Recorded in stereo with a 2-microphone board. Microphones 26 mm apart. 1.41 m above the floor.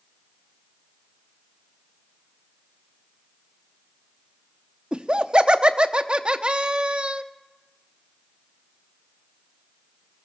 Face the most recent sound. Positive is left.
turn(degrees=-35)  # may be behind; listen again after turning